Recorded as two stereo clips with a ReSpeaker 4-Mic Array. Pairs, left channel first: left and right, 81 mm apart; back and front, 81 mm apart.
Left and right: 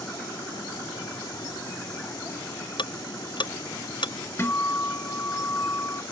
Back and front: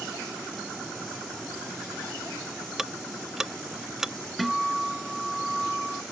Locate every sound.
2.8 s ticking: 85° left
4.4 s a guitar: 90° left